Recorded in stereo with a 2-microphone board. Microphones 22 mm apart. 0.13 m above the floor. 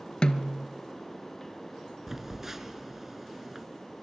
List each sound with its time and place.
0.2 s a snare drum: 45° left (ahead or behind), 1.5 m
2.1 s a phone buzzing: 15° right (ahead or behind), 2 m